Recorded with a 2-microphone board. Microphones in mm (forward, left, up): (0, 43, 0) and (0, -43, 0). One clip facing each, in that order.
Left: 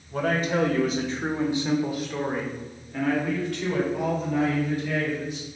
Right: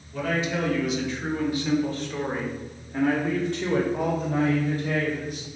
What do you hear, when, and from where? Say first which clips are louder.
0.1 s a man speaking: left 2 dB; 50° left (ahead or behind), 1.3 m; by 5.5 s 45° right (ahead or behind), 1.9 m